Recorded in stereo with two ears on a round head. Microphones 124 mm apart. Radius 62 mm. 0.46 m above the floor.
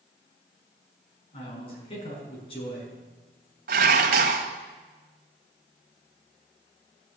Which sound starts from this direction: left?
A man speaking, at 1.3 s.